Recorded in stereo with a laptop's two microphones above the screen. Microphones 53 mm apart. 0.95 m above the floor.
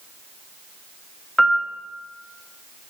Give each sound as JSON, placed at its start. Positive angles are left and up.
{"t": 1.4, "sound": "a piano", "side_deg": 5, "distance_m": 1.3}